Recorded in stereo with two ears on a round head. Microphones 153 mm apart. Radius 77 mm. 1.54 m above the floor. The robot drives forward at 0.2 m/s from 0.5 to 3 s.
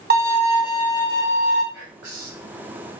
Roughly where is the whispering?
Right.